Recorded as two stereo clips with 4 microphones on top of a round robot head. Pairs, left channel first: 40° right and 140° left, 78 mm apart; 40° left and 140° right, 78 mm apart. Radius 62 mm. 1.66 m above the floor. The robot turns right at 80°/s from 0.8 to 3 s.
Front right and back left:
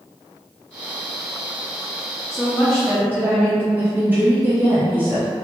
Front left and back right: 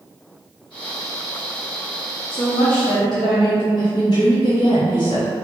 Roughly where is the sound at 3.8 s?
Left.